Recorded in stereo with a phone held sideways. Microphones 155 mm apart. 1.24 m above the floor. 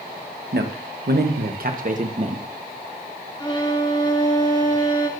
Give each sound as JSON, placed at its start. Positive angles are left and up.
{"t": 0.5, "sound": "a man speaking", "side_deg": -75, "distance_m": 1.0}
{"t": 3.4, "sound": "a violin", "side_deg": 25, "distance_m": 1.1}